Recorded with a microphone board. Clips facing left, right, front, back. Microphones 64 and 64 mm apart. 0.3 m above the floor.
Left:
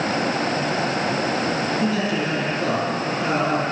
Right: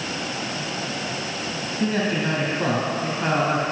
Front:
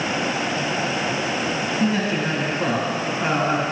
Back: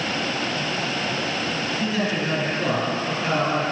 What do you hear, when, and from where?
1.8 s a man speaking: 55° right, 2.5 m